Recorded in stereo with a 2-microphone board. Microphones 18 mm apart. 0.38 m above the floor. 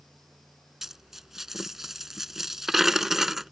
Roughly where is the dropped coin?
Right.